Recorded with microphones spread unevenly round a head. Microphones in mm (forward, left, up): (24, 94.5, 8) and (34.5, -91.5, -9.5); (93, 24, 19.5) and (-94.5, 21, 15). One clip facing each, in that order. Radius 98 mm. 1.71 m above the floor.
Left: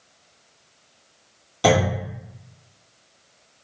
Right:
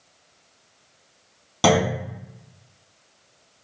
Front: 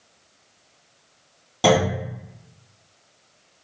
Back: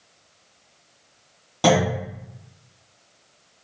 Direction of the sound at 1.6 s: 85° right.